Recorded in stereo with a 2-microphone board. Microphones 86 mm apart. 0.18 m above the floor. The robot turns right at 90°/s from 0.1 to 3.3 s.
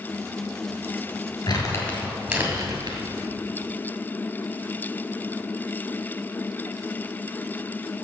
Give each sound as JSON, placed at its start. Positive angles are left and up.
{"t": 1.5, "sound": "crumpling", "side_deg": 55, "distance_m": 2.0}